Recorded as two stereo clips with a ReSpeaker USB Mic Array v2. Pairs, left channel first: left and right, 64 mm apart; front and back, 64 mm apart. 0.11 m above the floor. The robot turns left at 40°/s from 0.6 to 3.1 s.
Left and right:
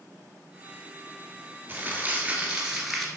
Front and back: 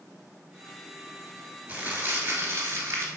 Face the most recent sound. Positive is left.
turn(degrees=175)